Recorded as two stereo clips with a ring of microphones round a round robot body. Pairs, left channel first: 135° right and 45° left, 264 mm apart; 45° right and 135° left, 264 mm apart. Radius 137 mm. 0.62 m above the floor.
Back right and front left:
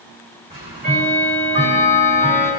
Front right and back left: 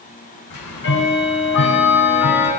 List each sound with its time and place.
0.5 s ticking: 20° right, 6 m